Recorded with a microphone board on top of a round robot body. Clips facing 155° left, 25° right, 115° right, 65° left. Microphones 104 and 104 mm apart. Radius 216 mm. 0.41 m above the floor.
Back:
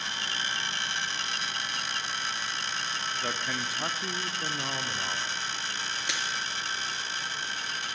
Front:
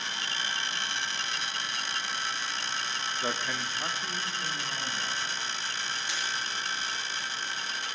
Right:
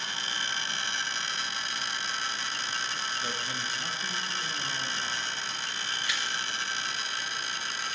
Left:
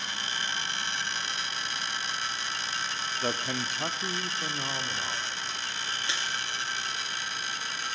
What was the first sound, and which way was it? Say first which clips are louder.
A man speaking: front 2 dB, left 4 dB; 50° left.